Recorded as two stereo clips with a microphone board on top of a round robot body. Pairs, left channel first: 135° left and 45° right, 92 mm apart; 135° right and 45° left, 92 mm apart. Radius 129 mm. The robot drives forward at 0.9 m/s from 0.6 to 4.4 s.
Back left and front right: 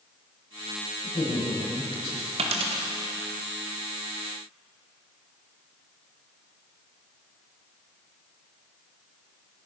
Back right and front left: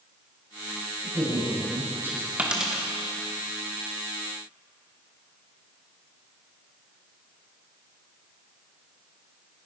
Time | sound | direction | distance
1.0 | a woman speaking | 105° left | 7.5 m
2.4 | a dropped coin | 30° right | 1.2 m